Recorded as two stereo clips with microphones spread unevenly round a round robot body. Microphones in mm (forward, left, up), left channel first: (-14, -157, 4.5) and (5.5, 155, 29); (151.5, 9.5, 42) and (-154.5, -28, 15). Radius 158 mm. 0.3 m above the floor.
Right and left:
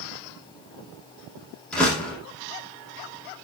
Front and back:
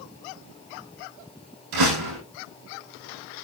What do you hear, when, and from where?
1.7 s a door slam: straight behind, 8 m